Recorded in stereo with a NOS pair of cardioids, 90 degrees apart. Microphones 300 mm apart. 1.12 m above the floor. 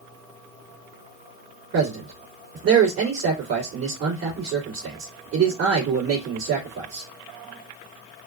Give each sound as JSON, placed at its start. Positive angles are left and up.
{"t": 1.7, "sound": "a man speaking", "azimuth_deg": -55, "distance_m": 2.5}